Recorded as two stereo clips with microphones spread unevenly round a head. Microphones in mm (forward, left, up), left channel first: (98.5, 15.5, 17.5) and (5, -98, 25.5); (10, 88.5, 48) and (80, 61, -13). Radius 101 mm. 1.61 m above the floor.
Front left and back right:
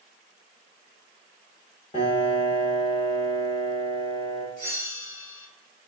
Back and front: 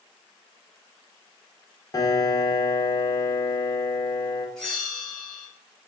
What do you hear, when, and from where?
1.9 s a piano: 115° left, 0.7 m
4.6 s a bell: 100° left, 1.8 m